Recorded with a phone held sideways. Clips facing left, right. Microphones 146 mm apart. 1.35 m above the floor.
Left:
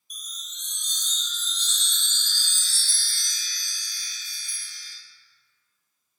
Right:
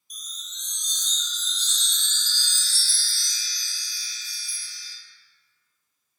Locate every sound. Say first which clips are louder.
0.1 s a chime: even; 65° left (ahead or behind), 1.1 m